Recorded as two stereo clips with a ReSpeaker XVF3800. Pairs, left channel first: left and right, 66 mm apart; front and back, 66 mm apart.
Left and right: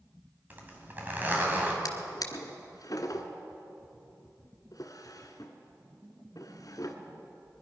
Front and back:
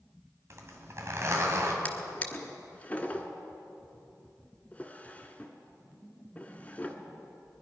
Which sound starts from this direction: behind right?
A zipper, at 0.5 s.